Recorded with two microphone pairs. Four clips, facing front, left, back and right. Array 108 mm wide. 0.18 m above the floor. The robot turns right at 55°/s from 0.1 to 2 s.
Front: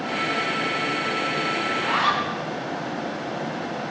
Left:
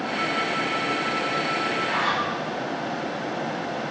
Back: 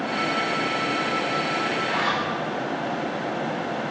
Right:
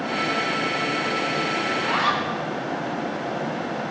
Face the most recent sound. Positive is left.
turn(degrees=-15)